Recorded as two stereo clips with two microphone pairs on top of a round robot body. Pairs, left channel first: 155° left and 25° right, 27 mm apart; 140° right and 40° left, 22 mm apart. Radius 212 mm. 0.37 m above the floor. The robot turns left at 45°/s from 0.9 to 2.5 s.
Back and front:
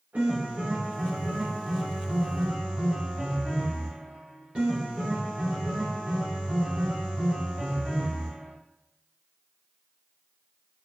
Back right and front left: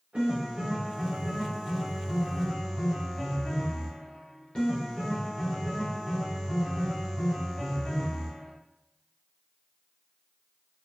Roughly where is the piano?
Ahead.